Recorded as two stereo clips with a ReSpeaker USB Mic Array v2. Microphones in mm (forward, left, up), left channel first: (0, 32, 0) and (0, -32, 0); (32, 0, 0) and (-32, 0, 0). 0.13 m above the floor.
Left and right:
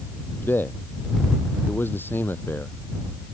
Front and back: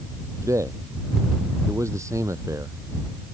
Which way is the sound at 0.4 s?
145° left.